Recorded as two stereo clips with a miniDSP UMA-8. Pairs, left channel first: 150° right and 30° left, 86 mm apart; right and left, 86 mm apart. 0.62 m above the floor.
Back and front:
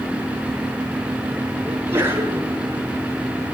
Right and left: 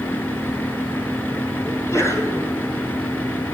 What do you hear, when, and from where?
1.7 s a sneeze: 30° right, 8 m